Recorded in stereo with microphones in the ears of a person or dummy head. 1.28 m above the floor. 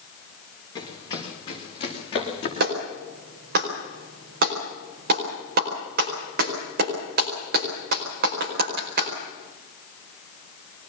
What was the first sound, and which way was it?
Running footsteps, 20° left (ahead or behind).